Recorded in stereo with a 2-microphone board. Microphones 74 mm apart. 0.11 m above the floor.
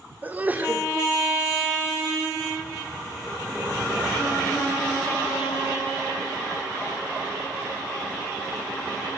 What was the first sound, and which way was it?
A sneeze, 20° right (ahead or behind).